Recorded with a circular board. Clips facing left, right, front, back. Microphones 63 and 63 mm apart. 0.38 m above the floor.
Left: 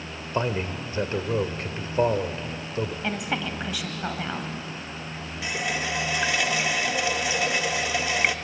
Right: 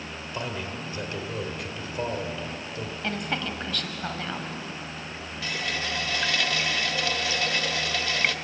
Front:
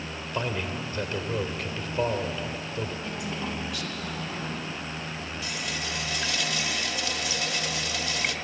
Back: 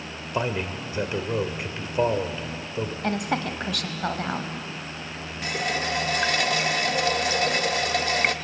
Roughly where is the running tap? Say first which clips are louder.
Left 3 dB, back 9 dB; behind.